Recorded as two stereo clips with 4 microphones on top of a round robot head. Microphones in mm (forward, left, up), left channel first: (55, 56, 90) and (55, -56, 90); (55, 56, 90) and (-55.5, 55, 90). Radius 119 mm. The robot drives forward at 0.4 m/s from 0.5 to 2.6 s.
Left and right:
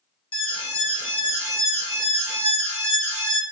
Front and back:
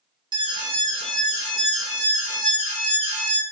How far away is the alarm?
About 0.8 m.